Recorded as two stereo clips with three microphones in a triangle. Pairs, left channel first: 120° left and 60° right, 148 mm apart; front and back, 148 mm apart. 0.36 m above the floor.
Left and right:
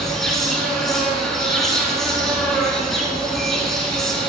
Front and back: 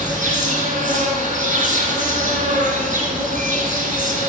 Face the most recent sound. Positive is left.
turn(degrees=-150)